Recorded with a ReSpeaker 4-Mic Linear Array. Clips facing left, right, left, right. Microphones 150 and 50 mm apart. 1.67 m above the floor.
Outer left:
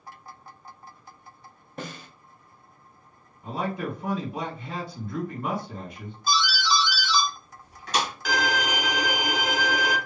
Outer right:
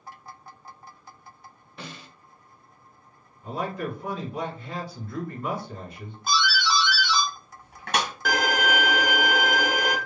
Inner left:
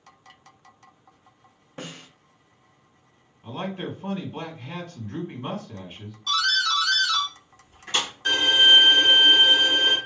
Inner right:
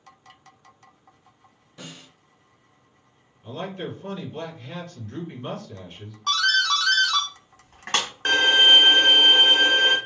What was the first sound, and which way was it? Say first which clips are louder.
A snare drum: outer left 4 dB, inner left 4 dB; 45° left (ahead or behind).